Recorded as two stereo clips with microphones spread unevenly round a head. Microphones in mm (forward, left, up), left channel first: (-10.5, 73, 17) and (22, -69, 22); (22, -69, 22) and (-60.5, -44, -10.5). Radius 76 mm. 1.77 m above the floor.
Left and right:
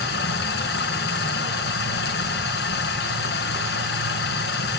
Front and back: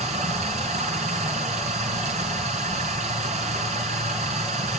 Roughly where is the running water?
Behind left.